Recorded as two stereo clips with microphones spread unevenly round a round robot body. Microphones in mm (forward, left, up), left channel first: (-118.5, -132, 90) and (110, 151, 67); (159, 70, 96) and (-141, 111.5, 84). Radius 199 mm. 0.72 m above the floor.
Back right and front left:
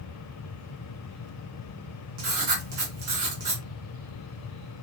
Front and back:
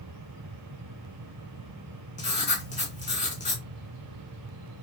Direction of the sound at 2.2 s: 55° left.